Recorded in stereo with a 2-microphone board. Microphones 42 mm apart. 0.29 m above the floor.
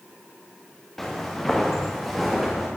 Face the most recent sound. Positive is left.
turn(degrees=0)  # may be behind; listen again after turning